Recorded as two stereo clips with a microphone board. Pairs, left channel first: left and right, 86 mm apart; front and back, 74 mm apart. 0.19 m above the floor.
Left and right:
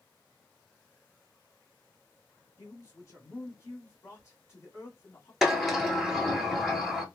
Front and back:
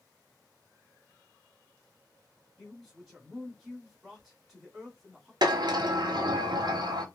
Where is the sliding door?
Straight behind, 0.7 m.